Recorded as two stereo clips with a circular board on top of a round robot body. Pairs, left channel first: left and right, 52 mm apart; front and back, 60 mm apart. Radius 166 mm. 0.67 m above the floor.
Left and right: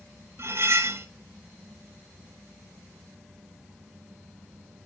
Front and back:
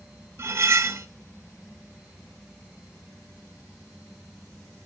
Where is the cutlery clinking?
135° right, 0.9 m.